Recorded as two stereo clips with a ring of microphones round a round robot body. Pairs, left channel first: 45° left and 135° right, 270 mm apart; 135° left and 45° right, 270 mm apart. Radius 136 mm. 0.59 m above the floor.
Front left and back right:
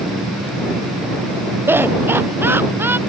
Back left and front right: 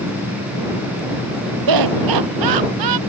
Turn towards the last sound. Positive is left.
turn(degrees=-55)